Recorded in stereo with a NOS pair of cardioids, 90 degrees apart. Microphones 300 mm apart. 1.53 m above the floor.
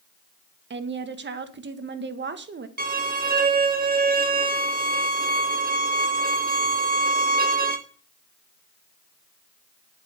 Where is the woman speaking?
35° right, 1.7 m.